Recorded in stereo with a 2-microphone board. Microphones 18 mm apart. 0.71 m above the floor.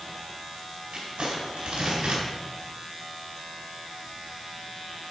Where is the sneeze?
I don't hear a sneeze.